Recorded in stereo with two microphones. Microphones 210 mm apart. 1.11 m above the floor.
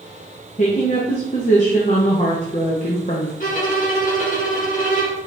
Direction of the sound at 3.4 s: 40° left (ahead or behind).